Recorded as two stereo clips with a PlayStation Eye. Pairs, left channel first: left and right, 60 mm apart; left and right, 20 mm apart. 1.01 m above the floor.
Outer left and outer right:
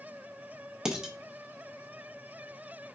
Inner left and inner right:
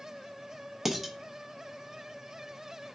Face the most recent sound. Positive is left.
turn(degrees=-10)  # may be behind; listen again after turning